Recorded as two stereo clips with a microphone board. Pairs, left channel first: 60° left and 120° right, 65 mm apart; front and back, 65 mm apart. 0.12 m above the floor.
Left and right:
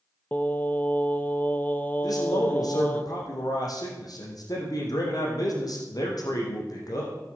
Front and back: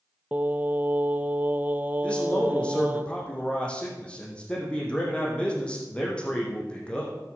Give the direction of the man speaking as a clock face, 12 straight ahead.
10 o'clock.